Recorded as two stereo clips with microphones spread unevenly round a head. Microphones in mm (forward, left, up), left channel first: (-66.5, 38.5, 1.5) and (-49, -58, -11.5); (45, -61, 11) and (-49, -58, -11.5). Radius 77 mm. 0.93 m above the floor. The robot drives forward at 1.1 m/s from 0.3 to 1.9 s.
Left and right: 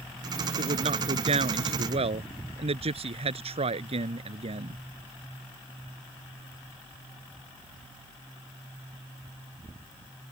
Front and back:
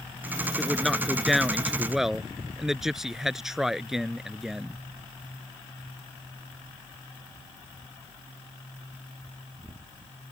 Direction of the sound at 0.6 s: 90° right.